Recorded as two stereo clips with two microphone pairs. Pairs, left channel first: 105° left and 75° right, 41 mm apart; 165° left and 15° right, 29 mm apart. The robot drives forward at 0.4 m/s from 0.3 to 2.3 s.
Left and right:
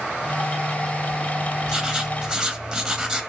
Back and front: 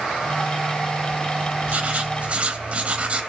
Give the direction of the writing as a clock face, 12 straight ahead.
12 o'clock.